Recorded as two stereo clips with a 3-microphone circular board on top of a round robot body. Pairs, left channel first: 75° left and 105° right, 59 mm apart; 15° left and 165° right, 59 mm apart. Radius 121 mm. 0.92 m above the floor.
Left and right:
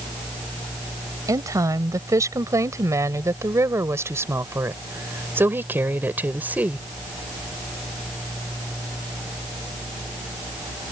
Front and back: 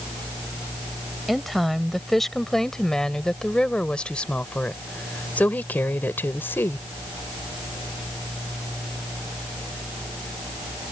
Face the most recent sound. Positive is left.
turn(degrees=-40)